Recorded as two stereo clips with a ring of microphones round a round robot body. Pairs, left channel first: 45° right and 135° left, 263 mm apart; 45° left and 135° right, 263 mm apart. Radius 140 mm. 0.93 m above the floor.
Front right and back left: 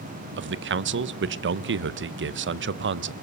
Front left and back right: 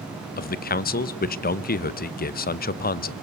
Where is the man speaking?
95° left, 0.8 m.